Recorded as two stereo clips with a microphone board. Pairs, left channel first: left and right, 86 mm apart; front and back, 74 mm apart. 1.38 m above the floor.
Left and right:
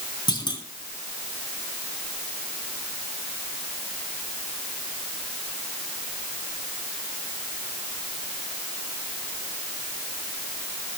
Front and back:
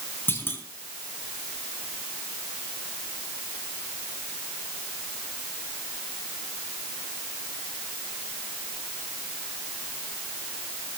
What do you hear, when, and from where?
0.3 s a clunk: 60° left, 3.5 m